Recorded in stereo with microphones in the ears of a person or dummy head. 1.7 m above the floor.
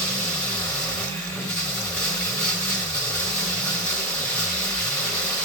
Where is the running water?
5° left (ahead or behind), 1.1 m.